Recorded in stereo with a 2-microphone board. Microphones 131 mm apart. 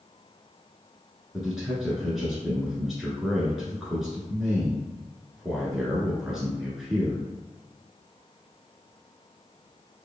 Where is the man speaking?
5° right (ahead or behind), 1.2 m.